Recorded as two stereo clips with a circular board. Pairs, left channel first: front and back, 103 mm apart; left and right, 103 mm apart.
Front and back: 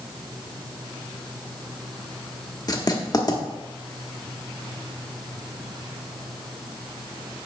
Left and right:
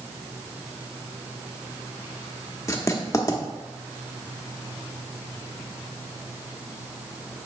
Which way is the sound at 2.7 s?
40° left.